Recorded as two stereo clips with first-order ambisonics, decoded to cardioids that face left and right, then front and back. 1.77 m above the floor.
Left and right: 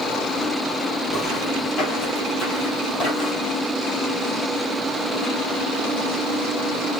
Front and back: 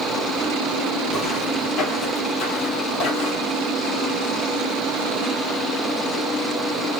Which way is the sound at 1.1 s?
55° left.